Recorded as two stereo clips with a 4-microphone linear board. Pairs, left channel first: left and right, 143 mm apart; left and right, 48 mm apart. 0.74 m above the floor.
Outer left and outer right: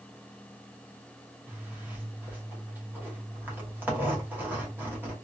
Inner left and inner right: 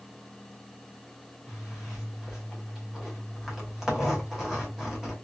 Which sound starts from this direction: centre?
A zipper, at 1.5 s.